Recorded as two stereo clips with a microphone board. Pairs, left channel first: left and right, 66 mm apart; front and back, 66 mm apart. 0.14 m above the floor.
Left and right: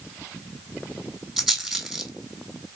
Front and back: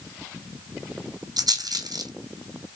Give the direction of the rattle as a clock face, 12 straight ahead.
6 o'clock.